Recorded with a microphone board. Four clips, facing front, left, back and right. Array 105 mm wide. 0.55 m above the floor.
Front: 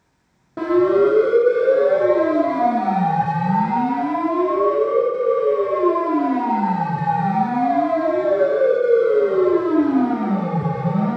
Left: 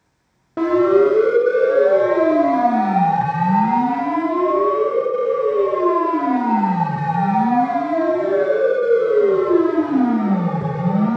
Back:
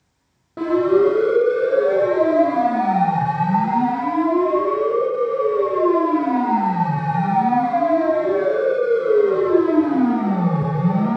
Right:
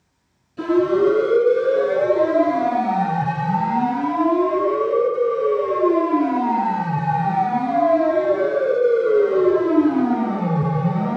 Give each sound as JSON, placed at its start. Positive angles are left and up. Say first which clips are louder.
{"t": 0.6, "sound": "a siren", "louder": "left 3 dB, even", "azimuth_deg": 85, "distance_m": 3.5}